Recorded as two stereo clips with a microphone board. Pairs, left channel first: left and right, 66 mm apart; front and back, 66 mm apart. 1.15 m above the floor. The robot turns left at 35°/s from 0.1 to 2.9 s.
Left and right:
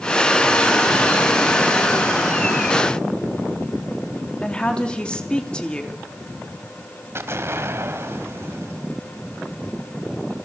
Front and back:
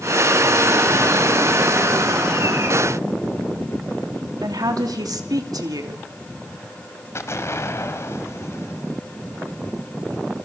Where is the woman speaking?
165° left, 2.5 m.